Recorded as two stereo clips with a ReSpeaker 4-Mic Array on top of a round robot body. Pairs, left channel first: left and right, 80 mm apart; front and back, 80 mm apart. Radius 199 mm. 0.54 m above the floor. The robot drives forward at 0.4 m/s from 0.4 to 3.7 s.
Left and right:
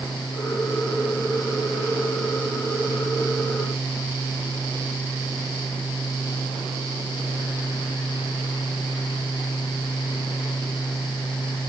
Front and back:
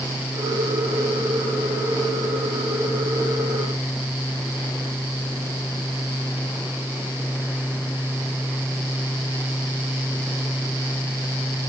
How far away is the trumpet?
No trumpet in this recording.